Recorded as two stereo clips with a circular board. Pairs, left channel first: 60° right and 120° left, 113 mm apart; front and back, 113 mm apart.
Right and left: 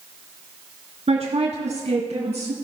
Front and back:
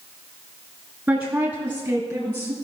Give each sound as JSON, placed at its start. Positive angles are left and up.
{"t": 1.1, "sound": "a woman speaking", "azimuth_deg": 110, "distance_m": 2.5}